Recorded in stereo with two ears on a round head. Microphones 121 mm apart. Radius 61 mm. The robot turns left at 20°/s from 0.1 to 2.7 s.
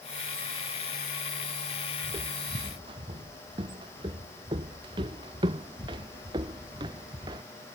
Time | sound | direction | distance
2.0 | footsteps | 25° right (ahead or behind) | ?